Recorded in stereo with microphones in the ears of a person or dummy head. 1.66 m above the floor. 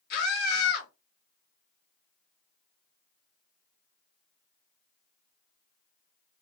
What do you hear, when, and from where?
0.1 s a scream: 55° left (ahead or behind), 2.5 m